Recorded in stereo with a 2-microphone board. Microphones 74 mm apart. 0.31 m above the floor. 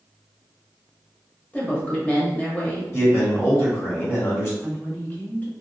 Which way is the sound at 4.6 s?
20° left (ahead or behind).